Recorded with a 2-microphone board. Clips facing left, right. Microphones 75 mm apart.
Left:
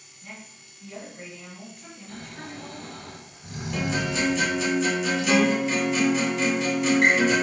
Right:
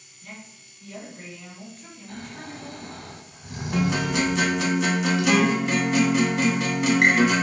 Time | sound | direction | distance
0.2 | a woman speaking | 15° left (ahead or behind) | 1.8 m
2.1 | snoring | 40° right (ahead or behind) | 1.5 m
3.7 | a guitar | 75° right (ahead or behind) | 0.5 m